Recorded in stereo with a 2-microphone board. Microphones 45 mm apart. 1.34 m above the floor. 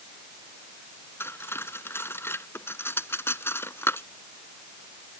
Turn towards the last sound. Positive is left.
turn(degrees=70)  # may be behind; listen again after turning